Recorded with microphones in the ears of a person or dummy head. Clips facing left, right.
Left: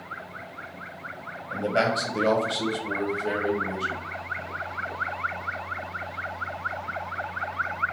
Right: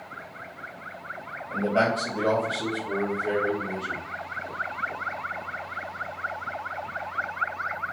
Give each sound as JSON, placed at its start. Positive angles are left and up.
{"t": 1.5, "sound": "a man speaking", "side_deg": 5, "distance_m": 1.2}